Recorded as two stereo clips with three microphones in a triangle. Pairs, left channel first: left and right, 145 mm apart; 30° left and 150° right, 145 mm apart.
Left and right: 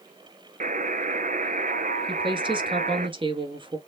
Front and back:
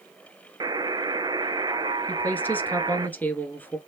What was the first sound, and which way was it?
A buzzer, 90° right.